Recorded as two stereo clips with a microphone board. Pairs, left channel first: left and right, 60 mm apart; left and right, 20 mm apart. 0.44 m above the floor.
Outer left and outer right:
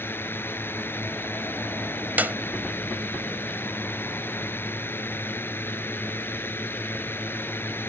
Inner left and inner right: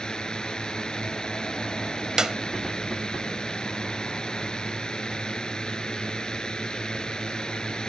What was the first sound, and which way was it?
A drone, 40° left (ahead or behind).